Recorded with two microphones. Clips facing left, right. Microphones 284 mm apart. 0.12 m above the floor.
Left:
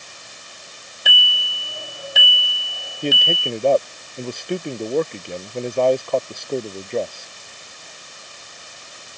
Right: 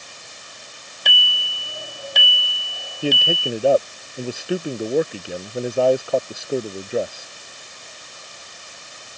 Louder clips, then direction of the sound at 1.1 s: Left 1 dB; 5° left (ahead or behind).